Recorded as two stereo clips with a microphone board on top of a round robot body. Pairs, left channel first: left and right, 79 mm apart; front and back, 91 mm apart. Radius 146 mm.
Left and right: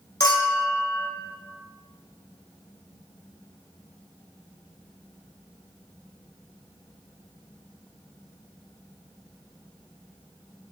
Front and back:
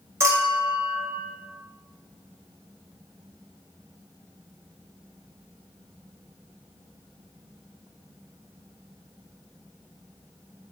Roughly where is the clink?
Behind left.